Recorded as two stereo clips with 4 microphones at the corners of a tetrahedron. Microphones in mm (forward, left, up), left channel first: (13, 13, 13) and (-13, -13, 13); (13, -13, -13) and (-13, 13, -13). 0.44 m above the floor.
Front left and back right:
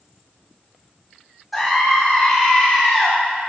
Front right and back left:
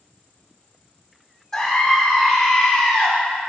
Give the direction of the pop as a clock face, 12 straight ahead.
No pop in this recording.